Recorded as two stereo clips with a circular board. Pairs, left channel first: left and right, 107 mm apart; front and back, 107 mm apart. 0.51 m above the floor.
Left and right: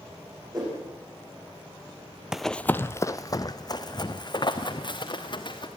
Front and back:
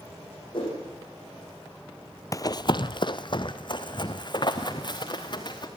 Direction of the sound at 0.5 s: 40° right.